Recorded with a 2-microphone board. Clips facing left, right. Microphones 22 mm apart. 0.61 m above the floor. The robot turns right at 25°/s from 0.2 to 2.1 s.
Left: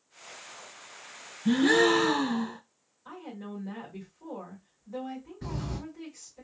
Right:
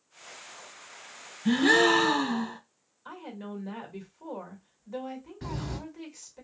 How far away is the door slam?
About 1.4 m.